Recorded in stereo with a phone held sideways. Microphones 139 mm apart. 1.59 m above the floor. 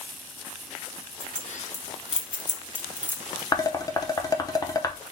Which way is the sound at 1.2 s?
65° left (ahead or behind).